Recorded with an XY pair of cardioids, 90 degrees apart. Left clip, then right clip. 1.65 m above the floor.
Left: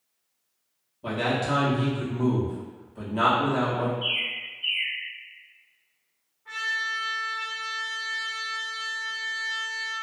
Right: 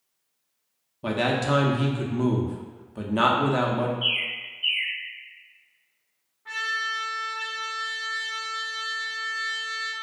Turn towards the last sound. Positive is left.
turn(degrees=-60)